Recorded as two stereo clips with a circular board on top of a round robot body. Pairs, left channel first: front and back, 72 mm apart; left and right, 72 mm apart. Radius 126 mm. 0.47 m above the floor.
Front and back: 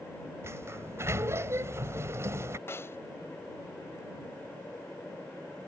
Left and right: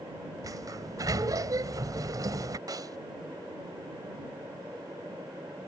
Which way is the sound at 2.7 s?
55° right.